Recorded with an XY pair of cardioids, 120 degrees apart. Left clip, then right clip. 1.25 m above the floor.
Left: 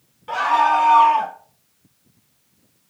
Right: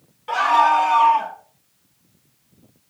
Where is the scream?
Straight ahead, 1.4 m; by 1.4 s 45° left, 1.5 m.